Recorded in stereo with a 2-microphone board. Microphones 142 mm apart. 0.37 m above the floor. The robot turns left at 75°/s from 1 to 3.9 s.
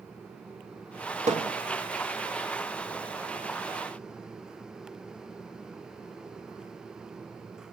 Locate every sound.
1.3 s hammering: 55° right (ahead or behind), 2.5 m; by 1.5 s 75° right (ahead or behind), 2.5 m